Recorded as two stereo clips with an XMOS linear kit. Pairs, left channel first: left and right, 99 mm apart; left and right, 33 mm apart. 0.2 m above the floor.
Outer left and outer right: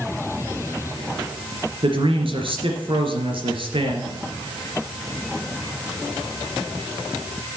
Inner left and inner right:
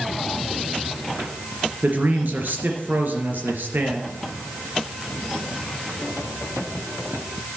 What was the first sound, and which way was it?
A man speaking, 65° right (ahead or behind).